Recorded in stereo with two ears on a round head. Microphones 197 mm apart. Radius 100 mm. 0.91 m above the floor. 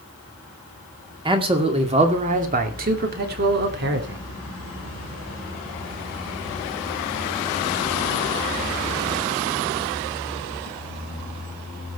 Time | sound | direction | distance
1.2 | a man speaking | 25° right (ahead or behind) | 2.5 m